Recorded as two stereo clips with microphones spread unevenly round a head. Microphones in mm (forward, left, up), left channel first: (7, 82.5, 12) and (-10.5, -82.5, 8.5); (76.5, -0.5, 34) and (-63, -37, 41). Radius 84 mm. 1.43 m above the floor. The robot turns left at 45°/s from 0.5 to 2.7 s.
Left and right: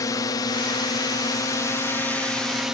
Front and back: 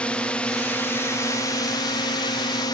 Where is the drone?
75° left; by 2.7 s 10° right.